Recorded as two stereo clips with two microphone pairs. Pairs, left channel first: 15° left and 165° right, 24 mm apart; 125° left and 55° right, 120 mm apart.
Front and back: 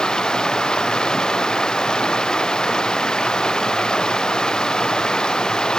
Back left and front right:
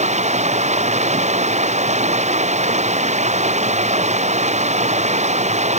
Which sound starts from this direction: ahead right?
Running water, at 0.0 s.